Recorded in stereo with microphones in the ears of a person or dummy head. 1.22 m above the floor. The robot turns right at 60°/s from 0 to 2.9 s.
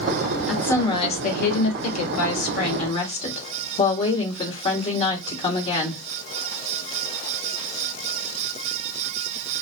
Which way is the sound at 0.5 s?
Straight ahead.